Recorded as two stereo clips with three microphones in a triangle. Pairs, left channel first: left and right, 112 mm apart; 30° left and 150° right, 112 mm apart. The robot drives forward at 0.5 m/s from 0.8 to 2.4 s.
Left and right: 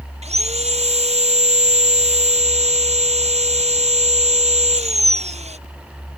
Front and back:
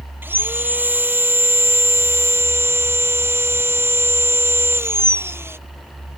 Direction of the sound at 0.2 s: 80° right.